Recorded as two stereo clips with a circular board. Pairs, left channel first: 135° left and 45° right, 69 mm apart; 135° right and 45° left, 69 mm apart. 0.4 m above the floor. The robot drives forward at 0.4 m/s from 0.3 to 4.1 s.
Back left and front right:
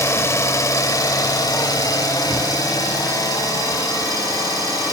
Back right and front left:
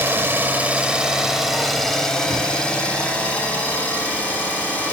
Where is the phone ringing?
No phone ringing in this recording.